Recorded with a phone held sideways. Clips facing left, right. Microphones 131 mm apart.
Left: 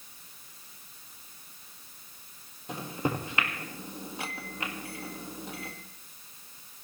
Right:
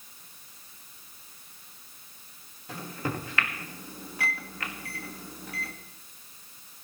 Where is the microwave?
20° left (ahead or behind), 1.7 m.